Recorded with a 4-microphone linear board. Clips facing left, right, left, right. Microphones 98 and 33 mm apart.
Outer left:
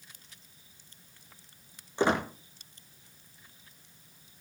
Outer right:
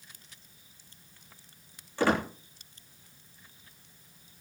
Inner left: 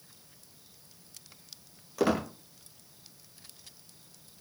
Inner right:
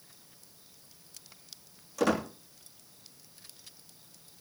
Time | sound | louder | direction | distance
2.0 | a squeak | even, even | 20° left (ahead or behind) | 3 m